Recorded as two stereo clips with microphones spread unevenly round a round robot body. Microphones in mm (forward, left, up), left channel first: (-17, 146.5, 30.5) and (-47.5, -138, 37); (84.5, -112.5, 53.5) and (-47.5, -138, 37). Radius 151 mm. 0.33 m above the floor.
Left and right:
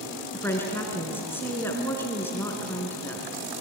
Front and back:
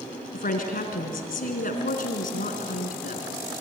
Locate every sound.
0.3 s a woman speaking: straight ahead, 3.5 m